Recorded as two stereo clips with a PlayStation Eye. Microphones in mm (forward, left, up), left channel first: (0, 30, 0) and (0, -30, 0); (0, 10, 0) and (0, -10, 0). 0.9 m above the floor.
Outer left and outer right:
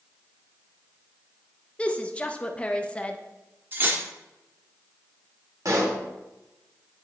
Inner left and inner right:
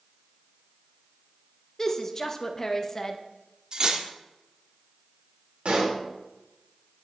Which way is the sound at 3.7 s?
35° right (ahead or behind).